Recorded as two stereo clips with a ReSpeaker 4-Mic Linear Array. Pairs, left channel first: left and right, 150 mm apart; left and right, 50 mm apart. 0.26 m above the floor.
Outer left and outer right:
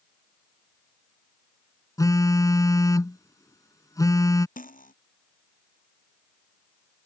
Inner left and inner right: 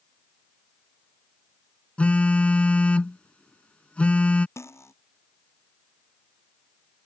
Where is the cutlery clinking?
65° left (ahead or behind).